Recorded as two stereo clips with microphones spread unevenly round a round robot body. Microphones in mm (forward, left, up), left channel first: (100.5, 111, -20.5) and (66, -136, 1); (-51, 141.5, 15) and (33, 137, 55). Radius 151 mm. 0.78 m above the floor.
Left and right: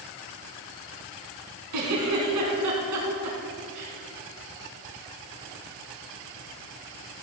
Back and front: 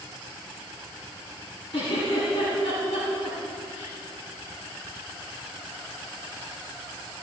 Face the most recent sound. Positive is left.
turn(degrees=-110)